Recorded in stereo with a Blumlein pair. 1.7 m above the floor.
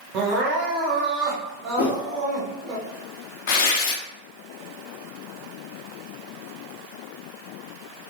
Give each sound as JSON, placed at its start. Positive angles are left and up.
{"t": 0.1, "sound": "crying", "azimuth_deg": -35, "distance_m": 0.7}
{"t": 1.8, "sound": "a whoosh", "azimuth_deg": 55, "distance_m": 0.5}
{"t": 3.5, "sound": "tearing paper", "azimuth_deg": 45, "distance_m": 0.5}